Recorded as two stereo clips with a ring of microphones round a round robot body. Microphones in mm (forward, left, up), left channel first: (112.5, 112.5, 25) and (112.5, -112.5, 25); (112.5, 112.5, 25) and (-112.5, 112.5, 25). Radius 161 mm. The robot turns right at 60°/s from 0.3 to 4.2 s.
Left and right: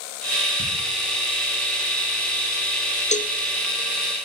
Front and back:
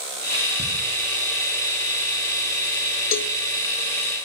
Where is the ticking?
105° left, 9 m; by 0.6 s 110° left, 9 m.